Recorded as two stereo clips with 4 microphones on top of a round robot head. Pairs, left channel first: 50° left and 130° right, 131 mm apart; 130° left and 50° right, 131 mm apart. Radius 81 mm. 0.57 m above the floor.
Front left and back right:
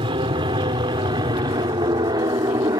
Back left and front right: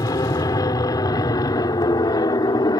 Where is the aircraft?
175° right; by 2.8 s straight behind.